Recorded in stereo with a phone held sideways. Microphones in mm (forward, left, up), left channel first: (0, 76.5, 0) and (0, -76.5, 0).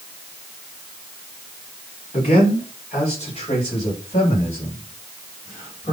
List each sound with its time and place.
2.1 s a man speaking: 45° left (ahead or behind), 5.5 m; by 5.9 s 50° left (ahead or behind), 8.5 m